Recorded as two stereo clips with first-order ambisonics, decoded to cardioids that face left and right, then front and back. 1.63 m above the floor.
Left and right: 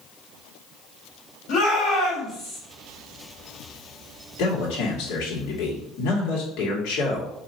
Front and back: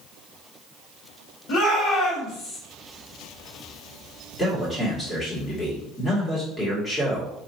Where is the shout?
35° left, 1.8 m.